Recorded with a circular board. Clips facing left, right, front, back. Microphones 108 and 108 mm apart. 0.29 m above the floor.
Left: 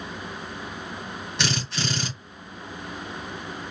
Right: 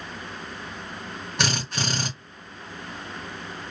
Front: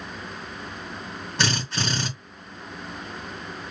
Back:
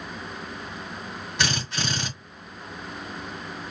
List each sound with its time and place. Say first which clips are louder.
1.4 s a drill: right 1 dB, front 2 dB; 55° right, 3 m